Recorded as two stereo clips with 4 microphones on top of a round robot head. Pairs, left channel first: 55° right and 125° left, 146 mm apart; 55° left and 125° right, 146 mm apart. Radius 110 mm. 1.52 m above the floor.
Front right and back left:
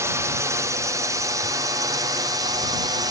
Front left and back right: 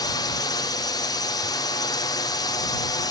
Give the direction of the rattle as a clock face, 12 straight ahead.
I don't hear a rattle.